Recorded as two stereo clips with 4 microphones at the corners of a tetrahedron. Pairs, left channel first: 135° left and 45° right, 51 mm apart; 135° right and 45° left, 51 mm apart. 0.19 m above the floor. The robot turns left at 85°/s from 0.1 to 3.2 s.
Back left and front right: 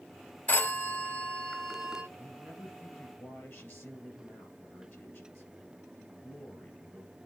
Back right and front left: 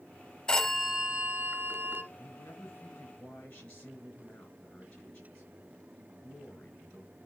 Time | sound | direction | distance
0.5 | a phone ringing | 165° left | 1.0 m
2.2 | a man speaking | 105° right | 3.5 m